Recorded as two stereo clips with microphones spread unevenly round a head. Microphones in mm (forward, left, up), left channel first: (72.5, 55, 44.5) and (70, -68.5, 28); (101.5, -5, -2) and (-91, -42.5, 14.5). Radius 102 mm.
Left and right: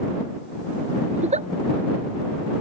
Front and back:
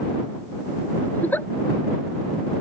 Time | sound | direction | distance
1.1 | a giggle | 70° right | ?